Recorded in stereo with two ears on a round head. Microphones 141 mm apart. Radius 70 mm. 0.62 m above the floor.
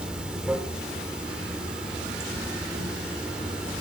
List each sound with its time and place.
0.0 s running water: 5° right (ahead or behind), 1.9 m